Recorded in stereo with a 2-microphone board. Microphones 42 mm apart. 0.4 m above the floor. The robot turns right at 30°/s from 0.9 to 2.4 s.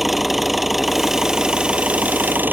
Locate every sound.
0.0 s an engine running: 175° right; by 2.5 s 130° right